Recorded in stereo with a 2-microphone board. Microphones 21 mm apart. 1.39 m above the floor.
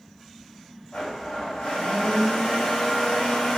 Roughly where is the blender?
Left.